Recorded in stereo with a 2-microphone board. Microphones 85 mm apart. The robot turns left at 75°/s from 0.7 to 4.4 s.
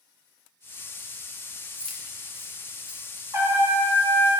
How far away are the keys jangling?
About 0.8 m.